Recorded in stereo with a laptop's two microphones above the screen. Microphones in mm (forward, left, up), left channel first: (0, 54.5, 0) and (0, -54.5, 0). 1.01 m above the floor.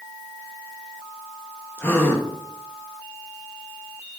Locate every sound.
1.8 s a gasp: 20° left (ahead or behind), 0.8 m